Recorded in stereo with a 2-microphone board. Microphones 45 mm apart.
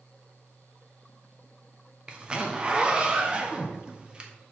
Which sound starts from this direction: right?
A zipper, at 2.1 s.